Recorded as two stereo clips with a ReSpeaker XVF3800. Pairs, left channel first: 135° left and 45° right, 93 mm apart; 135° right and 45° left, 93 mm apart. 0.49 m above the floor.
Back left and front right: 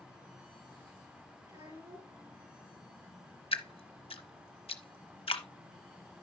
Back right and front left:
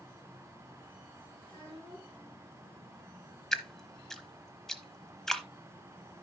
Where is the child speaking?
85° right, 4.5 m.